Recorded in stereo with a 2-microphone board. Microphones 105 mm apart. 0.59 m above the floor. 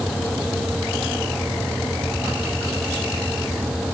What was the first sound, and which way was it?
Only background noise.